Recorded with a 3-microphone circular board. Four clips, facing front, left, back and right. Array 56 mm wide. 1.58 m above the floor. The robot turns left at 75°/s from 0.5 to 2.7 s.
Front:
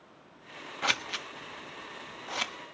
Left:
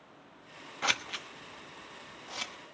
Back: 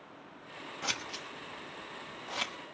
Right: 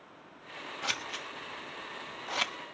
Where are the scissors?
45° left, 1.1 m; by 2.5 s 80° right, 1.1 m.